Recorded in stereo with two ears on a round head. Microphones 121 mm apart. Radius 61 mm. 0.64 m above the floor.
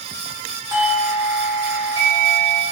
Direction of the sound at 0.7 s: 25° right (ahead or behind).